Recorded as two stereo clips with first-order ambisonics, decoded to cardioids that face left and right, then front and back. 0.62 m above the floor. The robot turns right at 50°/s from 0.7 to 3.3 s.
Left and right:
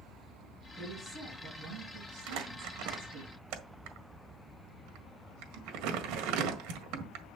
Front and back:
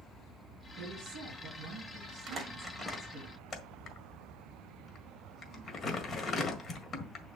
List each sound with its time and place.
0.8 s a woman speaking: 175° right, 4.5 m; by 3.3 s 50° right, 4.5 m
2.3 s crumpling: 115° right, 1.6 m; by 7.2 s 60° right, 1.6 m